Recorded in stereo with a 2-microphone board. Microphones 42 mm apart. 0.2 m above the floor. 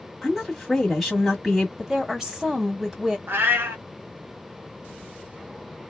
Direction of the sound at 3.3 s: 65° right (ahead or behind).